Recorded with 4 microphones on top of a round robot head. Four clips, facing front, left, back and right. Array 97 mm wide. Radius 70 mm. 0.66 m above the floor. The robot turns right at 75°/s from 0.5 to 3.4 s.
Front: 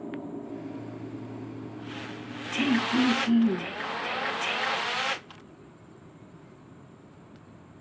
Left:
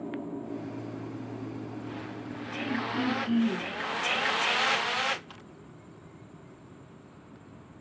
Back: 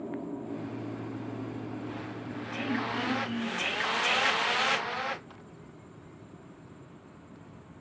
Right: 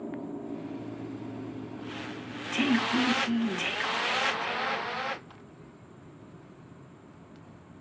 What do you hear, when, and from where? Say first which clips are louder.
2.6 s throat clearing: right 5 dB, front 8 dB; 50° right, 7.5 m; by 3.7 s 10° left, 7.5 m